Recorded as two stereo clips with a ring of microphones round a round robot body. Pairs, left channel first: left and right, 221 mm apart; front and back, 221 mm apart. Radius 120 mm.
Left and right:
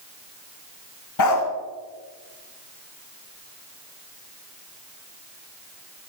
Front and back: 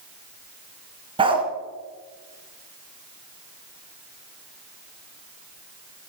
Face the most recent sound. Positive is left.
turn(degrees=110)